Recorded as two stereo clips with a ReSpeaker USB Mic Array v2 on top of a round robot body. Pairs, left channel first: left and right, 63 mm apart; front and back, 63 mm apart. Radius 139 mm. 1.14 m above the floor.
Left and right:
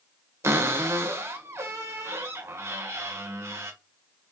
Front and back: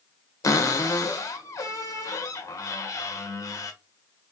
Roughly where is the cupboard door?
Ahead right.